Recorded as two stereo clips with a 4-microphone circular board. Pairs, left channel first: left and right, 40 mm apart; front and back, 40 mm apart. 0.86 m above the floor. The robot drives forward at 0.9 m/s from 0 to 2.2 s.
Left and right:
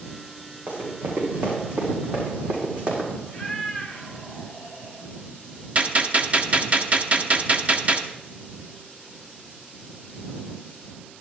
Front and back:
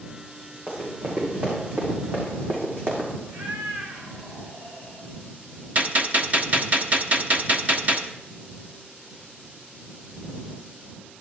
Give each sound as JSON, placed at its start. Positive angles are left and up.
{"t": 0.7, "sound": "running footsteps", "azimuth_deg": -135, "distance_m": 5.0}
{"t": 3.3, "sound": "a cat meowing", "azimuth_deg": 165, "distance_m": 2.0}
{"t": 5.8, "sound": "a gunshot", "azimuth_deg": -140, "distance_m": 0.7}